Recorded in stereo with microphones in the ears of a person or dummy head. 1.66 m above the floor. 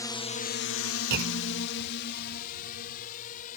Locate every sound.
0.0 s a drone: 15° left (ahead or behind); by 3.6 s 45° left (ahead or behind)
1.1 s a clunk: 55° right (ahead or behind)